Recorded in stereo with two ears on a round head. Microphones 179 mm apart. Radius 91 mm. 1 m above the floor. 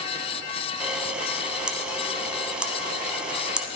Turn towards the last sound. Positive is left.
turn(degrees=-5)  # may be behind; listen again after turning